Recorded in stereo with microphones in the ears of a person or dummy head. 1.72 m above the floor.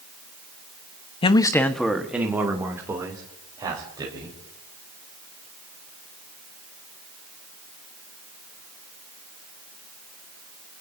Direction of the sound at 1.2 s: 25° left (ahead or behind).